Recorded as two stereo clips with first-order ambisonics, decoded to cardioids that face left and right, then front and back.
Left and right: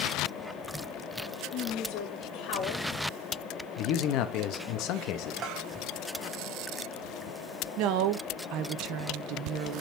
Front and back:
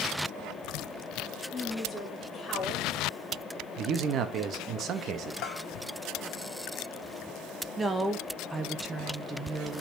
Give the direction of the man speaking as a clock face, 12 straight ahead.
8 o'clock.